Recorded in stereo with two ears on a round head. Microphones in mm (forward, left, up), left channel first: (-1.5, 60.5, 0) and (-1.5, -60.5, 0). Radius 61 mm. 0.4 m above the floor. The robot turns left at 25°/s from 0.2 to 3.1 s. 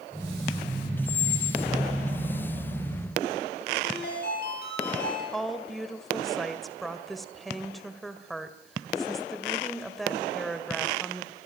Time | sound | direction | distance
1.1 | a squeak | 45° left (ahead or behind) | 0.9 m
3.8 | a ringtone | 80° left | 7 m
5.3 | a woman speaking | centre (ahead or behind) | 1.7 m